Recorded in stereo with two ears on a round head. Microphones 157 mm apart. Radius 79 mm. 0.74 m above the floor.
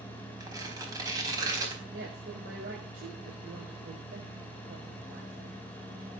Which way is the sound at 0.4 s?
20° right (ahead or behind).